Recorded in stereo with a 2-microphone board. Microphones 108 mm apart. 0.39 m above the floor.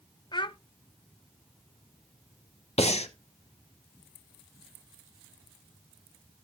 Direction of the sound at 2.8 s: 80° left.